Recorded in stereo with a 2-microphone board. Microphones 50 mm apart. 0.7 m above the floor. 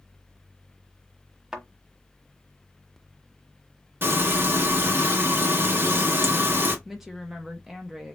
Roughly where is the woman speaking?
Centre.